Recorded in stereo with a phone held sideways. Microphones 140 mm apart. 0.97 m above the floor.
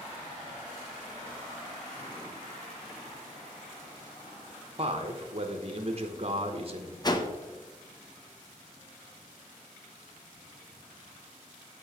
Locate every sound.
4.8 s a man speaking: 45° right (ahead or behind), 0.8 m
7.0 s a whoosh: 30° left (ahead or behind), 0.7 m